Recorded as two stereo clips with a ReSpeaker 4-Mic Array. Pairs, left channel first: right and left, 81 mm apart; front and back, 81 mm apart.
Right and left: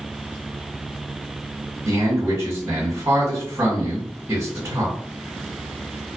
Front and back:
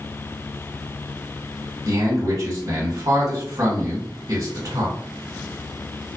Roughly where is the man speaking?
Behind left.